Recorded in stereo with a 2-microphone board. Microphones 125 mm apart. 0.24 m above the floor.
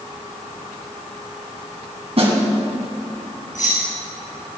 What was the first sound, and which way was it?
A snare drum, 50° right (ahead or behind).